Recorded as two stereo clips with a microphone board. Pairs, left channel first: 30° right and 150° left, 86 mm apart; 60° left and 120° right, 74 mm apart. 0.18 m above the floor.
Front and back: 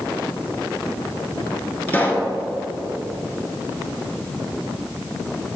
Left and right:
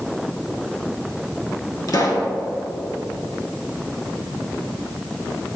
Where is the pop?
35° left, 1.5 m.